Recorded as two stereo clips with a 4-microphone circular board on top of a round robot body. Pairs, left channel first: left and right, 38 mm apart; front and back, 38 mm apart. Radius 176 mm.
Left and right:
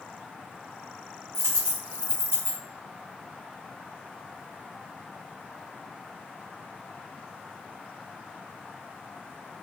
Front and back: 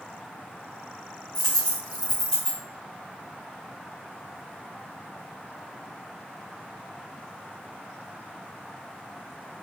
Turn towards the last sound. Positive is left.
turn(degrees=-75)